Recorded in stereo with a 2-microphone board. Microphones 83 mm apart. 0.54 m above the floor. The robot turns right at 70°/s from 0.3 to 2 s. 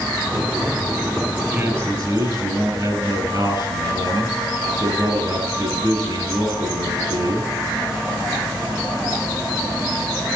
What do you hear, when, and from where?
1.5 s a man speaking: 155° right, 9 m; by 7.5 s 120° right, 9 m